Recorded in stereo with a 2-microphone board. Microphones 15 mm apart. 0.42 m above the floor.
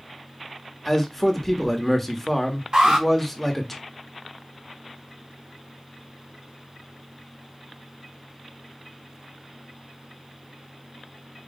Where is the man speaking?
10° left (ahead or behind), 0.9 m.